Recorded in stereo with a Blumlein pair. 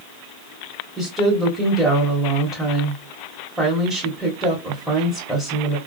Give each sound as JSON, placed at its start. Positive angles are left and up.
{"t": 1.0, "sound": "a woman speaking", "azimuth_deg": 0, "distance_m": 1.6}